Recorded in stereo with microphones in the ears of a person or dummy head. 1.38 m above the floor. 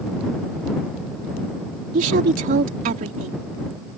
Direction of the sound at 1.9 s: 55° right (ahead or behind).